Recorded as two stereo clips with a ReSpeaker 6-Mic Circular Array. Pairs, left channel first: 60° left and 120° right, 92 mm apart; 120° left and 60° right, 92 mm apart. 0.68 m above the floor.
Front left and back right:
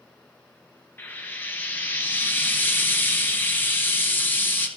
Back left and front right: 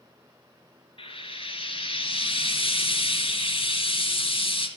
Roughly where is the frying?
Behind left.